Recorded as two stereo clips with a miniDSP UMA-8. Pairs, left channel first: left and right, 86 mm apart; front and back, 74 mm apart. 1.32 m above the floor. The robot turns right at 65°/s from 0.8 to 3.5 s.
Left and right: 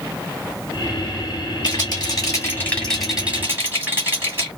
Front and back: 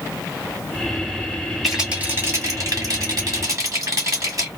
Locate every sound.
1.6 s a rattle: 90° left, 1.9 m; by 4.5 s 150° right, 1.9 m